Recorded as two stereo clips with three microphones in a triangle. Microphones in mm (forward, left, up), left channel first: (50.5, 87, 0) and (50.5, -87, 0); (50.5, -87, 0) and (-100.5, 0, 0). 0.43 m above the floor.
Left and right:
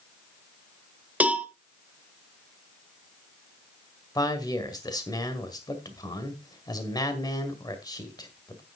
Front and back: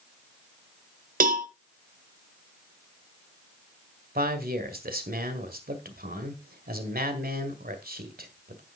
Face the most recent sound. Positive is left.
turn(degrees=155)